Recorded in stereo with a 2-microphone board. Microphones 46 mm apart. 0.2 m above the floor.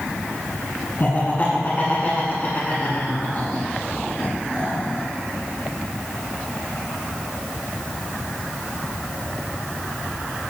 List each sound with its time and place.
1.0 s laughter: 40° left (ahead or behind), 1.8 m